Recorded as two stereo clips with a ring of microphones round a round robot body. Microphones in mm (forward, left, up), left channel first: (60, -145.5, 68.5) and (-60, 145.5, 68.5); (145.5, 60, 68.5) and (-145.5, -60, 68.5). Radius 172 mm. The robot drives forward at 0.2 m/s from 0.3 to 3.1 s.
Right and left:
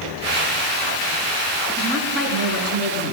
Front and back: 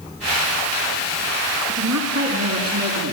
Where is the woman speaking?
160° left, 5.5 m.